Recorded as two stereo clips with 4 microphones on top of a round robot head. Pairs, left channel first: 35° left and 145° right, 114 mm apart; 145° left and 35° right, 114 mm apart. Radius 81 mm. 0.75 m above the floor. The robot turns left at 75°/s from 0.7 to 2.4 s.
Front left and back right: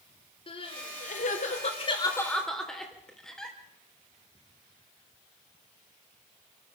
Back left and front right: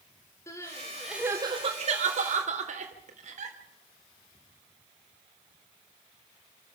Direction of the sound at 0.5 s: 80° left.